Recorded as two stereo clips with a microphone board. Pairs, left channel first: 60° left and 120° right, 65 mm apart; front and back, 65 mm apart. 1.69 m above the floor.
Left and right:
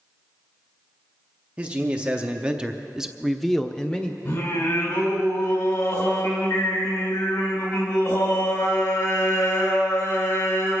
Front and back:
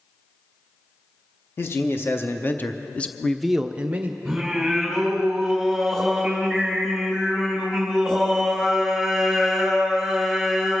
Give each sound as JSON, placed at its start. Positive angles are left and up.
{"t": 1.6, "sound": "a man speaking", "azimuth_deg": -50, "distance_m": 1.4}
{"t": 4.2, "sound": "singing", "azimuth_deg": 85, "distance_m": 3.5}